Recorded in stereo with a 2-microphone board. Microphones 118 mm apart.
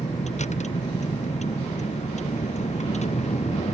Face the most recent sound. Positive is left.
turn(degrees=75)  # may be behind; listen again after turning